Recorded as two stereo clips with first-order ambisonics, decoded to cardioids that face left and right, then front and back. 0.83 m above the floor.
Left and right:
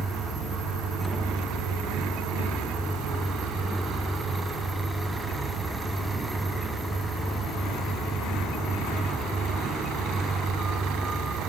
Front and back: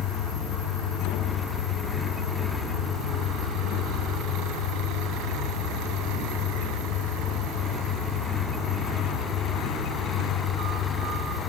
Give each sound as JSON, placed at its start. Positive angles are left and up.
{"t": 0.0, "sound": "an engine running", "azimuth_deg": -10}